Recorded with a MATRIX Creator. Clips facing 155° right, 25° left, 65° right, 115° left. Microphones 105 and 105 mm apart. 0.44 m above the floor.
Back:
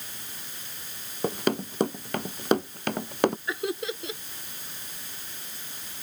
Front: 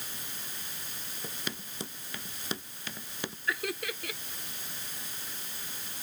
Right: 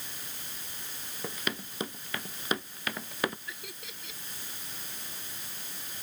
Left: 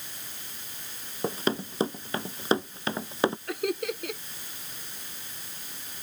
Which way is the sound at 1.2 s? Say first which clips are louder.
Back 16 dB, left 9 dB; 170° left.